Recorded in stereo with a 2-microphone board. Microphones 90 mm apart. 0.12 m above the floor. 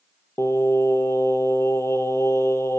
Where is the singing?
35° left (ahead or behind), 0.7 m.